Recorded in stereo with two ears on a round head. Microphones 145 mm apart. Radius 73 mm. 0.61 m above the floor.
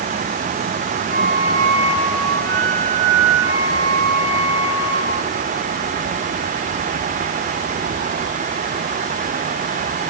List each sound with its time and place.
1.1 s a flute: 85° right, 4 m